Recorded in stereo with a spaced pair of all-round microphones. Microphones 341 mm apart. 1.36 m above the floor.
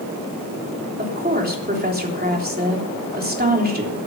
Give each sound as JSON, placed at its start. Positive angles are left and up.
{"t": 1.0, "sound": "a woman speaking", "side_deg": -25, "distance_m": 3.5}